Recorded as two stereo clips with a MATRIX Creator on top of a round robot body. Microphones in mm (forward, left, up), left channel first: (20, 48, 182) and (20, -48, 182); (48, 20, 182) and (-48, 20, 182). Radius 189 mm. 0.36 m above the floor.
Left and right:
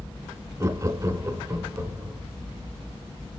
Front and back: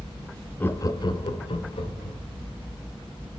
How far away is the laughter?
About 0.9 m.